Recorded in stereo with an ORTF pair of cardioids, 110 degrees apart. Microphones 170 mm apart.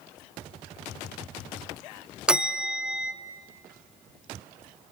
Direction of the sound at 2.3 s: 5° right.